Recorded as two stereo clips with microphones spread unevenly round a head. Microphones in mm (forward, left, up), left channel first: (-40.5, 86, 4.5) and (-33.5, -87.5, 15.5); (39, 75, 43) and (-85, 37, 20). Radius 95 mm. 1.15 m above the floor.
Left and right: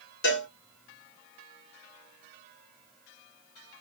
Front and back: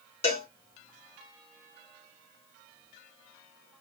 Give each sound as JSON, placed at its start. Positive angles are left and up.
{"t": 0.2, "sound": "a cowbell", "azimuth_deg": 60, "distance_m": 3.0}